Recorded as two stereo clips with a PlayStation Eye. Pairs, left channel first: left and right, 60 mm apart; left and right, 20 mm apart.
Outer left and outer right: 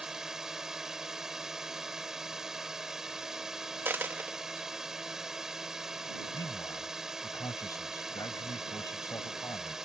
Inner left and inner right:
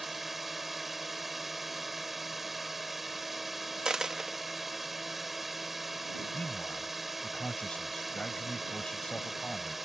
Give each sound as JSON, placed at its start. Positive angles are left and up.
{"t": 0.0, "sound": "a drone", "side_deg": -10}
{"t": 3.9, "sound": "a dropped coin", "side_deg": -35}
{"t": 6.3, "sound": "a man speaking", "side_deg": 90}